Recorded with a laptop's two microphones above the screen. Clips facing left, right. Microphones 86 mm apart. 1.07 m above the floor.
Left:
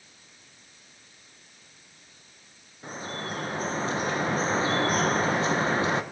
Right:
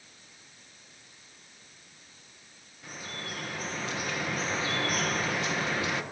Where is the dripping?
35° left (ahead or behind), 0.8 m.